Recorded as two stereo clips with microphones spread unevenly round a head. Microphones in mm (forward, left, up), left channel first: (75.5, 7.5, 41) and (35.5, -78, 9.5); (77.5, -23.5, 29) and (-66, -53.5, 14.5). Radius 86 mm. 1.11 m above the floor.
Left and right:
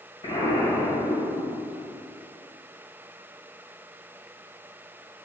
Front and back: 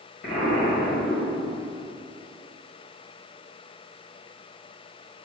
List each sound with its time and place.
0.2 s an explosion: 35° left, 1.9 m